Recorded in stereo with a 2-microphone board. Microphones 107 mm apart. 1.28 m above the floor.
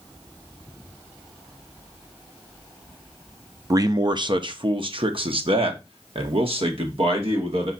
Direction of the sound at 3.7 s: 30° right (ahead or behind).